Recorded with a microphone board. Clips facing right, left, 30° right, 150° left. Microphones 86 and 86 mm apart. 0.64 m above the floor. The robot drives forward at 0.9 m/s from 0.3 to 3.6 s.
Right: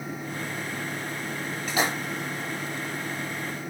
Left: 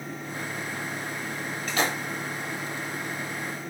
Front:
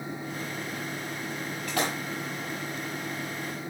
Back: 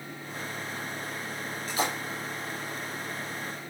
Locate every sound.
1.7 s a splash: 10° right, 4.5 m